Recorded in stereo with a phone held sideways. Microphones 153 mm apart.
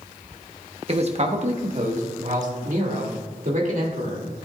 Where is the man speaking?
40° right (ahead or behind), 1.0 m; by 4.5 s 60° right (ahead or behind), 3 m.